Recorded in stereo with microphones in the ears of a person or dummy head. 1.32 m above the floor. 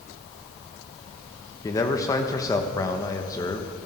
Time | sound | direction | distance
1.6 | a man speaking | 20° left (ahead or behind) | 1.1 m